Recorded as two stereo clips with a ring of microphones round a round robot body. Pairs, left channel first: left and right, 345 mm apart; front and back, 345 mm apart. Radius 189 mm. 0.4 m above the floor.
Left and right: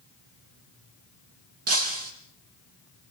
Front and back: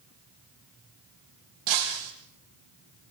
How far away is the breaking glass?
About 7 m.